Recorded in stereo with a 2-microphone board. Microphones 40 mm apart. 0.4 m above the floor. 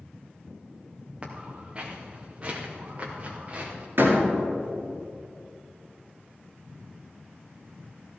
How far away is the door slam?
About 5 m.